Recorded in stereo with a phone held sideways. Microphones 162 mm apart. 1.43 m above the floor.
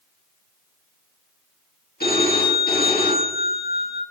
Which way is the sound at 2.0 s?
70° left (ahead or behind).